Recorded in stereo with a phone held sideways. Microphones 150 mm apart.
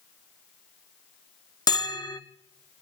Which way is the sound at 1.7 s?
25° left (ahead or behind).